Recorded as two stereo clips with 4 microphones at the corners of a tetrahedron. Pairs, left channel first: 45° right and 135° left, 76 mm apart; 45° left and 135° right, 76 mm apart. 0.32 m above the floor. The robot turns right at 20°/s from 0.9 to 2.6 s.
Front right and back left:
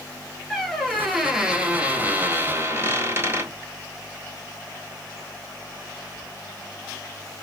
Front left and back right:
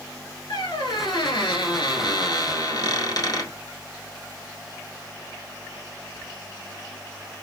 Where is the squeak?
40° left, 1.1 m; by 3.5 s 75° left, 1.1 m.